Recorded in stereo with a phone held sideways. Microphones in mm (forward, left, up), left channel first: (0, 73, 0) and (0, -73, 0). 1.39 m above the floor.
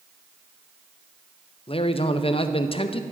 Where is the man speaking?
40° left (ahead or behind), 0.5 m.